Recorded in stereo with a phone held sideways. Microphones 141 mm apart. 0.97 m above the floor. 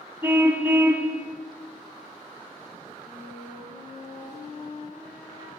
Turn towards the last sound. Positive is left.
turn(degrees=60)  # may be behind; listen again after turning